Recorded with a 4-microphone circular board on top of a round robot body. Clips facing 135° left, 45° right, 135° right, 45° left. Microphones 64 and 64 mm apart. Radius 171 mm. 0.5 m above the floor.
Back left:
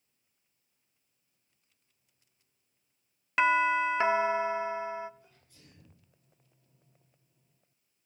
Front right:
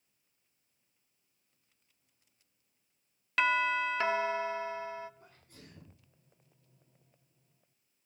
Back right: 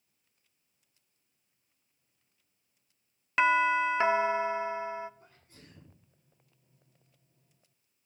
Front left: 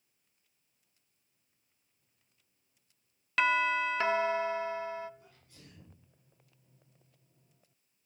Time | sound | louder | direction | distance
3.4 | a doorbell | back left 4 dB, back right 3 dB | straight behind | 1.6 m
5.2 | a sneeze | front right 5 dB, back right 1 dB | 75° right | 8 m